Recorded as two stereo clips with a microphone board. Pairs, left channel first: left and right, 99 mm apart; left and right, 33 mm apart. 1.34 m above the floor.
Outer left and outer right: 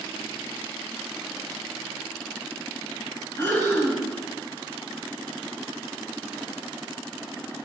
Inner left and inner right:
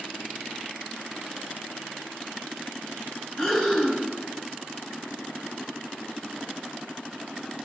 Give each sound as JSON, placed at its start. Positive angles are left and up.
{"t": 3.4, "sound": "breathing", "side_deg": 25, "distance_m": 10.0}